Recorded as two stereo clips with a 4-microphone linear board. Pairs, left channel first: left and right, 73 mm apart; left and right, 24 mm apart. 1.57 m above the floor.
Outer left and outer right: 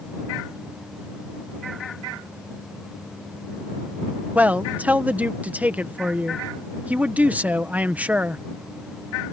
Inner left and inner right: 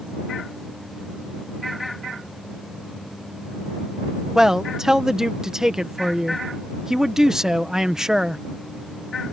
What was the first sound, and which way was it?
A man speaking, 20° right (ahead or behind).